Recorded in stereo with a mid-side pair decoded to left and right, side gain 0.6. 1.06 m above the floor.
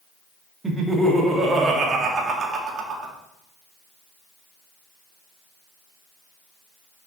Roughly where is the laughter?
Ahead.